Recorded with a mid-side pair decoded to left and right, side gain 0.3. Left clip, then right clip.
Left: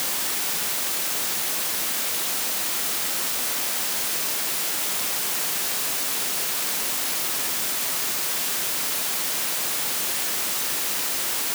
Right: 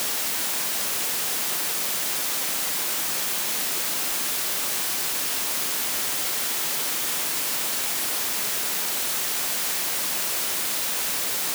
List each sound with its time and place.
Only background noise.